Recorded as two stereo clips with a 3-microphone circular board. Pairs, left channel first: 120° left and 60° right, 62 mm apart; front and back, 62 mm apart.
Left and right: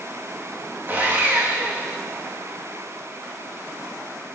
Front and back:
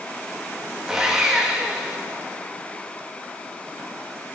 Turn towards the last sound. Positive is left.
turn(degrees=-105)